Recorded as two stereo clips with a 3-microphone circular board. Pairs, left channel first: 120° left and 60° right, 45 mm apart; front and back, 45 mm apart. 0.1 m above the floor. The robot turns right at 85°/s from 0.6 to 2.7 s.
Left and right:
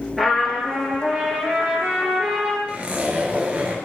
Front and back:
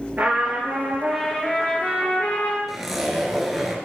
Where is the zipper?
100° right, 1.2 m.